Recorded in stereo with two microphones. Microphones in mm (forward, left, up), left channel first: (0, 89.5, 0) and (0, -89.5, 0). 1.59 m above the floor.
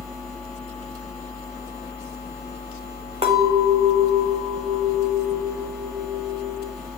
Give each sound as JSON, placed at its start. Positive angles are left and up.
{"t": 3.2, "sound": "a clink", "side_deg": -35, "distance_m": 4.5}